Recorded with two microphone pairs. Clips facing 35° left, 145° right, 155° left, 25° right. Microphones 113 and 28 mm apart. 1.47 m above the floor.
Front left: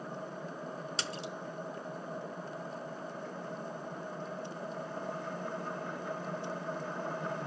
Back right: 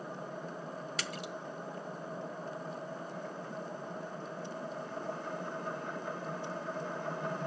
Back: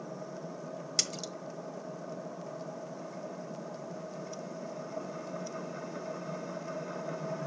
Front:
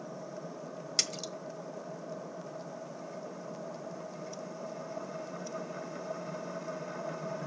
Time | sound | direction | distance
1.0 | a splash | 50° left | 1.4 m